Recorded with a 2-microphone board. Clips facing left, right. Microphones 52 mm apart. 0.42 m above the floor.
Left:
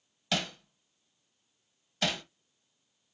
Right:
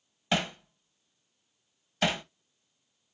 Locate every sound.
0.3 s hammering: 25° right (ahead or behind), 0.7 m